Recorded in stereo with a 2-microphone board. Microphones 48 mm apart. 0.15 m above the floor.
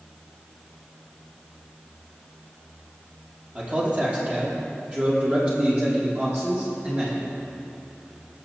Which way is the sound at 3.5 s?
25° right (ahead or behind).